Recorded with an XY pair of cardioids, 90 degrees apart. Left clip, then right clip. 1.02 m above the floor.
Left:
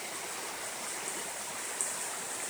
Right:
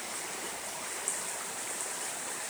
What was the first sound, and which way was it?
Only background noise.